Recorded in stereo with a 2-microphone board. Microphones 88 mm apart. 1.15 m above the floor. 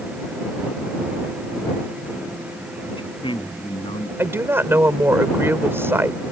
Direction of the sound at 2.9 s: 75° left (ahead or behind).